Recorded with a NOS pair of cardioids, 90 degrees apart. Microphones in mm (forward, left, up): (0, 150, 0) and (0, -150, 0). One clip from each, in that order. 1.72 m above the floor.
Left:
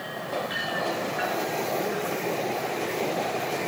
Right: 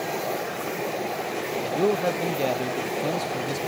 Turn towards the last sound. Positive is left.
turn(degrees=-65)